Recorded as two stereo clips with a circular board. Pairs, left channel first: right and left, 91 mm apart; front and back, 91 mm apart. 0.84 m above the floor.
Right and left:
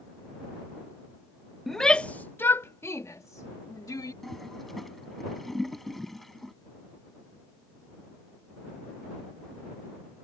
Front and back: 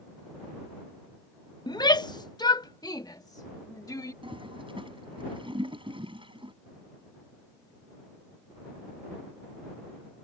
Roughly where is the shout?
Ahead.